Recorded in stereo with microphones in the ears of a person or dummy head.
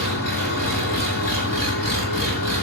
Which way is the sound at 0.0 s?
70° left (ahead or behind).